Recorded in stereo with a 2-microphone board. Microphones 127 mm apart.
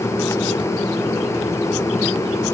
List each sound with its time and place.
Only background noise.